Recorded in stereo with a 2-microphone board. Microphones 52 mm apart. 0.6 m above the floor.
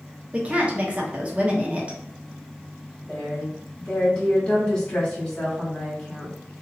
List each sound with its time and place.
0.3 s a woman speaking: 25° right (ahead or behind), 0.7 m
3.1 s a woman speaking: 20° left (ahead or behind), 1.7 m